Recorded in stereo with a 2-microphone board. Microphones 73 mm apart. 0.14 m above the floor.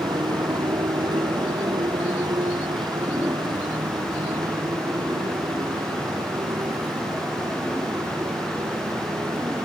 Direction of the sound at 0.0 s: 85° right.